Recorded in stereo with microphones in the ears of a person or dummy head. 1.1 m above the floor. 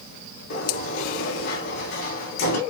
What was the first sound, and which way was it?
A sliding door, 55° left (ahead or behind).